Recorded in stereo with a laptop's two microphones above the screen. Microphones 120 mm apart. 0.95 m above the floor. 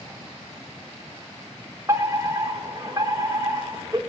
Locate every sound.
1.9 s a fire alarm: 25° right (ahead or behind), 4.5 m